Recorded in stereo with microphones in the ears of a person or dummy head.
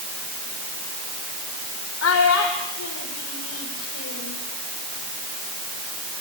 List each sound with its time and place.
2.0 s a child speaking: 75° left (ahead or behind), 2.5 m; by 4.4 s 65° left (ahead or behind), 4 m